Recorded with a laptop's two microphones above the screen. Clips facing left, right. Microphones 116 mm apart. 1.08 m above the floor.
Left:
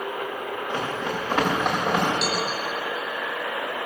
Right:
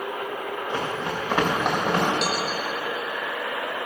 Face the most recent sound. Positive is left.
turn(degrees=-65)  # may be behind; listen again after turning